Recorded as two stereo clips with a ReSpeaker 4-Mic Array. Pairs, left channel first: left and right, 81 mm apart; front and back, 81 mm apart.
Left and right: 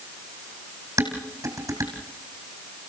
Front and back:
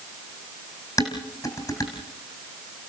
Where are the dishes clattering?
40° right, 4 m.